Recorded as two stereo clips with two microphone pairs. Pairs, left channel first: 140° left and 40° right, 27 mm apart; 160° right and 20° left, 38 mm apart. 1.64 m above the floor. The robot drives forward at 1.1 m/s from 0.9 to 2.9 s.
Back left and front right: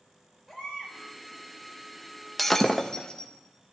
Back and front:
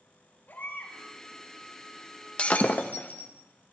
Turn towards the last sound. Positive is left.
turn(degrees=-160)